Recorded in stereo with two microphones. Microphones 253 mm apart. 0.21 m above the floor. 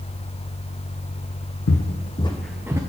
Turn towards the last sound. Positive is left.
turn(degrees=-10)  # may be behind; listen again after turning